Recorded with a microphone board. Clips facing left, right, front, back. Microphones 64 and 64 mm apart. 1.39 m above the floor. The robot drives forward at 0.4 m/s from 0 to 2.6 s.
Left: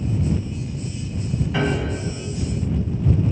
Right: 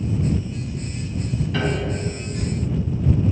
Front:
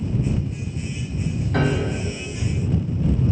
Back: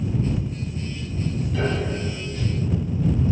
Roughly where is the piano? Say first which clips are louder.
Left 1 dB, front 4 dB; ahead.